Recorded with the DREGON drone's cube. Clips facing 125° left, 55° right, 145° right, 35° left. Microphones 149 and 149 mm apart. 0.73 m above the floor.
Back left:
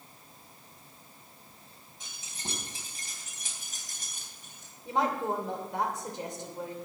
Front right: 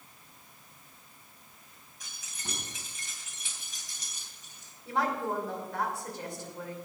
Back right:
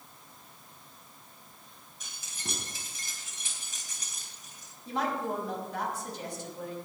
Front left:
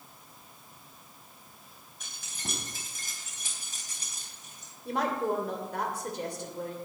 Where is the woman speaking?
55° left, 2.5 m.